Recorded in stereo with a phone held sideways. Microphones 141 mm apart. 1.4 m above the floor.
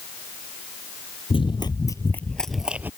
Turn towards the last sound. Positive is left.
turn(degrees=-15)  # may be behind; listen again after turning